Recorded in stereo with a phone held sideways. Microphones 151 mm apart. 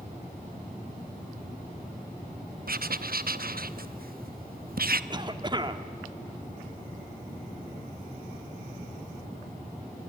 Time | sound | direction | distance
2.7 | writing | 70° right (ahead or behind) | 0.8 m
5.1 | a cough | 30° right (ahead or behind) | 1.4 m